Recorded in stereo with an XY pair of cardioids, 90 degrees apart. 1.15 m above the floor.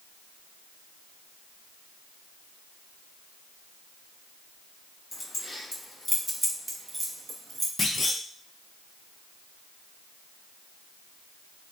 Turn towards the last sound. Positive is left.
turn(degrees=35)